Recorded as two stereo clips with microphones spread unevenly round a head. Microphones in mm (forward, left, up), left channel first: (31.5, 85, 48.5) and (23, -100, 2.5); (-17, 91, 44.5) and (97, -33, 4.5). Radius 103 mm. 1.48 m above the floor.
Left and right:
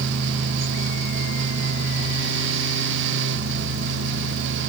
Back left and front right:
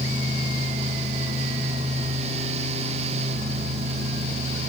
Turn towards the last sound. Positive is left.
No sound to turn to.